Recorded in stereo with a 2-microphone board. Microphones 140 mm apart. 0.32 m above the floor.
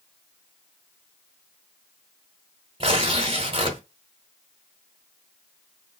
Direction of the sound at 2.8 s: 45° right (ahead or behind).